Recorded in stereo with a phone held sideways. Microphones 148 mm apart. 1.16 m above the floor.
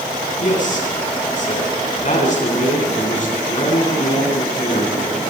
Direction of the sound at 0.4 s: 60° left (ahead or behind).